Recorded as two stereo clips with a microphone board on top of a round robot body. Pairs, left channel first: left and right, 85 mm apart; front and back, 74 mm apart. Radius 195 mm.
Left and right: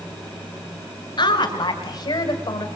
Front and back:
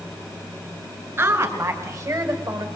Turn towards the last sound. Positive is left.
turn(degrees=140)